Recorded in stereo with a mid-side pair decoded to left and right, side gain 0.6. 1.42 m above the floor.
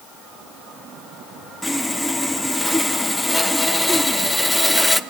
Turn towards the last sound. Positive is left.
turn(degrees=5)